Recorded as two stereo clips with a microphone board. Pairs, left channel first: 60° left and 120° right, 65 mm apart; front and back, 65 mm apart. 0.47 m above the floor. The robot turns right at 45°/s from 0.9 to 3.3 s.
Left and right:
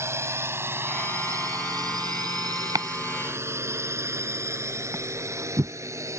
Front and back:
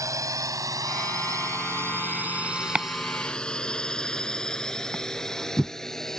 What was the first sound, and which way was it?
A drone, 160° right.